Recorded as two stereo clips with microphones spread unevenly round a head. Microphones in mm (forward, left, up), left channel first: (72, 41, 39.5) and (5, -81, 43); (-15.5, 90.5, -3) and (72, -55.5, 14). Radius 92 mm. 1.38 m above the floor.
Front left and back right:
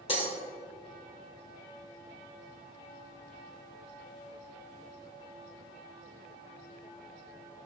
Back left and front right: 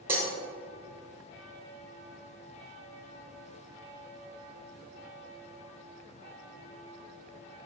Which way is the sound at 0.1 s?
15° left.